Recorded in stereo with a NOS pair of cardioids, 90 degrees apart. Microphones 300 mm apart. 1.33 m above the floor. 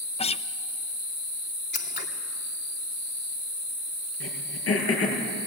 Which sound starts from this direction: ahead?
A guitar, at 0.2 s.